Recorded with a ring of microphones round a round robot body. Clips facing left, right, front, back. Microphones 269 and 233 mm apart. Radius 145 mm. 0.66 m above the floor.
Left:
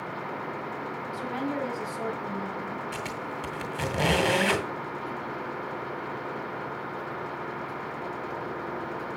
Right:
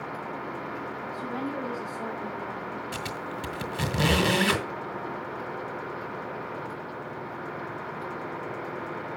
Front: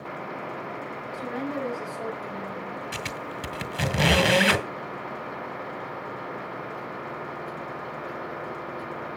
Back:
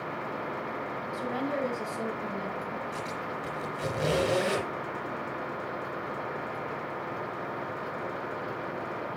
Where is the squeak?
20° right, 2.0 m.